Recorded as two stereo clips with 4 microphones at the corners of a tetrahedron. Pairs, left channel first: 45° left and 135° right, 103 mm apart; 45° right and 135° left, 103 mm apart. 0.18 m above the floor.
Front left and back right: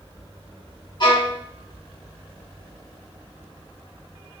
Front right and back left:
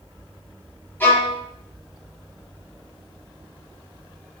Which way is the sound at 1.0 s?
20° left.